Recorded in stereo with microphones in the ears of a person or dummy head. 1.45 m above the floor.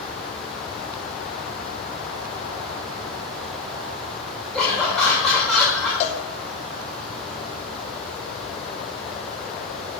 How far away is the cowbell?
About 0.8 m.